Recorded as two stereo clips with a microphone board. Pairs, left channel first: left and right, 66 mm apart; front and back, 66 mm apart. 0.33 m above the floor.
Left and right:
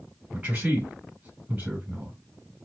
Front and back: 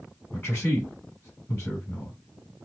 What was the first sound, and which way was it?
A man speaking, 40° right.